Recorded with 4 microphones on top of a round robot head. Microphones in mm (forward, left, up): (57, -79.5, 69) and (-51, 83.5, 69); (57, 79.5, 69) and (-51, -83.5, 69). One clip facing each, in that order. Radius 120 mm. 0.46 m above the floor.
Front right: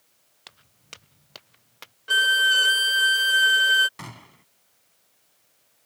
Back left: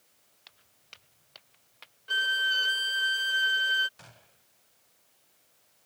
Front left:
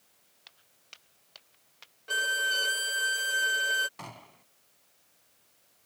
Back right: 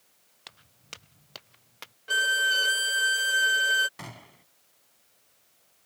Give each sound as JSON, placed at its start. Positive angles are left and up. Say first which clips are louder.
{"t": 0.5, "sound": "footsteps", "louder": "front right 11 dB, back right 12 dB", "azimuth_deg": -90}
{"t": 2.1, "sound": "a violin", "louder": "front right 8 dB, back right 2 dB", "azimuth_deg": -35}
{"t": 4.0, "sound": "a gunshot", "louder": "front right 14 dB, back right 2 dB", "azimuth_deg": -45}